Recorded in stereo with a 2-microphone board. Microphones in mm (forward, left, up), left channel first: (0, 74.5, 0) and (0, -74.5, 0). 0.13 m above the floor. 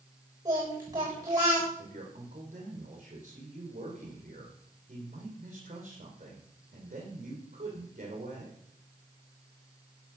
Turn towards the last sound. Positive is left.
turn(degrees=-55)  # may be behind; listen again after turning